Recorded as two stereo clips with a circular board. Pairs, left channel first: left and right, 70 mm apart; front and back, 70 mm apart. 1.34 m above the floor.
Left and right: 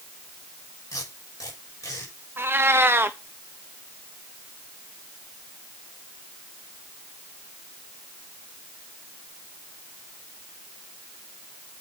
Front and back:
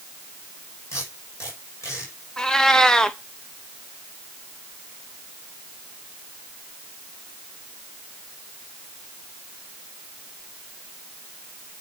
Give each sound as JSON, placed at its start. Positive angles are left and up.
{"t": 0.9, "sound": "tape being pulled", "azimuth_deg": 45, "distance_m": 6.0}
{"t": 2.4, "sound": "a cat meowing", "azimuth_deg": -75, "distance_m": 0.8}